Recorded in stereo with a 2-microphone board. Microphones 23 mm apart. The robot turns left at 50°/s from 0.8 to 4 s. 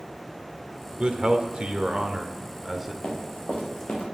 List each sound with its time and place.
1.0 s a man speaking: 65° right, 1.0 m; by 2.9 s 165° right, 1.0 m
3.0 s running footsteps: 50° left (ahead or behind), 3.5 m; by 4.1 s 65° left (ahead or behind), 2.5 m